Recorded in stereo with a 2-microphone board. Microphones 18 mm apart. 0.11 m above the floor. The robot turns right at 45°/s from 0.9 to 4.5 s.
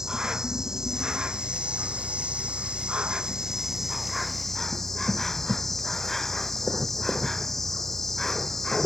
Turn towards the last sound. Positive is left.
turn(degrees=15)